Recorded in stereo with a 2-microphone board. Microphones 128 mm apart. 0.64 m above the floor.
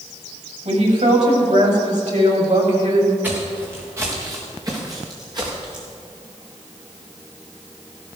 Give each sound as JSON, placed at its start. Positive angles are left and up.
{"t": 0.7, "sound": "a woman speaking", "side_deg": -75, "distance_m": 4.5}
{"t": 3.2, "sound": "footsteps", "side_deg": -15, "distance_m": 3.5}